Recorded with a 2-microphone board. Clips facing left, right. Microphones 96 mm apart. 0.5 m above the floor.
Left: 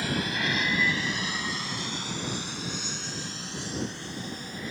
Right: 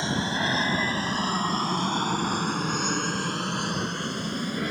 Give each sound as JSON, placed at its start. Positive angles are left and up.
{"t": 0.0, "sound": "an aircraft", "side_deg": -25}